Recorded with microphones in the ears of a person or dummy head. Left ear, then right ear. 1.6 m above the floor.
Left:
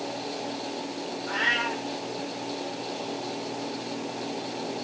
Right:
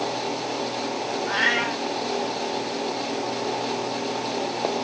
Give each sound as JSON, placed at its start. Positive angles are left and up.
{"t": 1.3, "sound": "a cat meowing", "side_deg": -65, "distance_m": 3.5}